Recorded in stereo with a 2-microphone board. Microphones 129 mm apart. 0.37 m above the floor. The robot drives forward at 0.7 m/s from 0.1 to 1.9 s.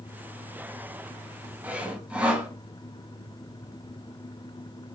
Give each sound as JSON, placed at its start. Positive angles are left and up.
{"t": 1.6, "sound": "sawing", "side_deg": -10, "distance_m": 0.6}